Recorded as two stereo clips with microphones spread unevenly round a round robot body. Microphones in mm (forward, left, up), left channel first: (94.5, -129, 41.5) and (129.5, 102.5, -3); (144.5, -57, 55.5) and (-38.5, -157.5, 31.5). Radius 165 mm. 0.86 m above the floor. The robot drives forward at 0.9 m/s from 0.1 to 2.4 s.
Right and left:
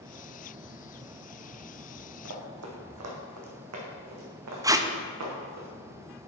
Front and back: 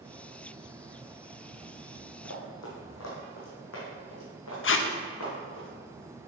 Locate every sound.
2.2 s running footsteps: 65° left, 1.9 m; by 5.6 s 75° left, 4 m
4.6 s tape being pulled: 15° left, 0.8 m